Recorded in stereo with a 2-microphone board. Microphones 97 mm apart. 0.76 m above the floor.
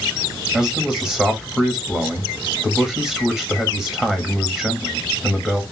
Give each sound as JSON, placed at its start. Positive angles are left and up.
{"t": 0.5, "sound": "a man speaking", "side_deg": -5, "distance_m": 1.2}